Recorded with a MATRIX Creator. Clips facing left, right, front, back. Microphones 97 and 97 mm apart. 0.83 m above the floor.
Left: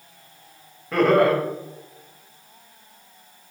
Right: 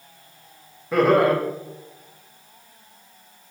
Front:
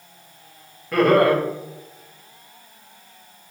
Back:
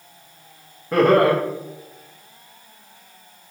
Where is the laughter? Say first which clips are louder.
Even, back 1 dB; 160° right, 0.7 m.